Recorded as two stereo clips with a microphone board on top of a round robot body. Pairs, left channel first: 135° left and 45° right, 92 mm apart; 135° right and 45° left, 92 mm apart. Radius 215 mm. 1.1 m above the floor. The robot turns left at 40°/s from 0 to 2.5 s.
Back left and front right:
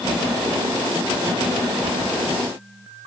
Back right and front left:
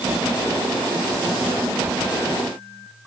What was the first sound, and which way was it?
Only background noise.